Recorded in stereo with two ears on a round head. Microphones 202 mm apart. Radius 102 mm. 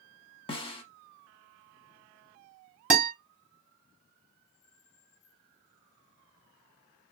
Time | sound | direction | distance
0.5 | a snare drum | 25° left (ahead or behind) | 0.7 m
2.9 | a guitar | 5° right (ahead or behind) | 1.4 m